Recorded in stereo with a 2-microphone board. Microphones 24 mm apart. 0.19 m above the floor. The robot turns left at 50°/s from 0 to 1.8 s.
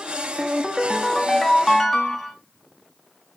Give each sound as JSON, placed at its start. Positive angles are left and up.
{"t": 0.4, "sound": "a ringtone", "azimuth_deg": -135, "distance_m": 0.5}